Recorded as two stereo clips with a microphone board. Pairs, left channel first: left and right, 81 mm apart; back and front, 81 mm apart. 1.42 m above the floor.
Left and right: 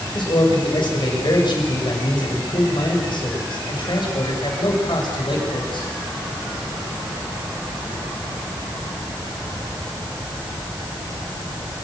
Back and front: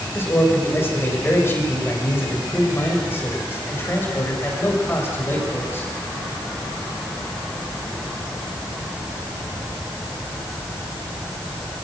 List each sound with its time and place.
0.1 s a man speaking: 115° left, 6.5 m